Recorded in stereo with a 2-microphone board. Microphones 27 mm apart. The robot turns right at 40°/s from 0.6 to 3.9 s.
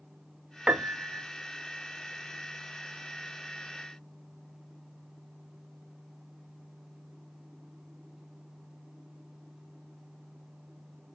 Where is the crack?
No crack in this recording.